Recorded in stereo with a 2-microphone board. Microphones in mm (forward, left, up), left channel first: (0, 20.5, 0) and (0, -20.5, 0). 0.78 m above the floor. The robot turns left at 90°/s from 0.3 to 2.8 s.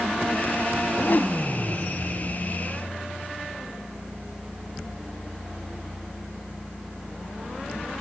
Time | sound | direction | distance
0.8 | a whoosh | 75° left | ?